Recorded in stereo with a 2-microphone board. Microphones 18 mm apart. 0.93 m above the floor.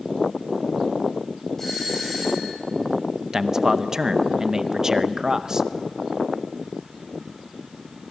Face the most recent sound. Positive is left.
turn(degrees=-30)  # may be behind; listen again after turning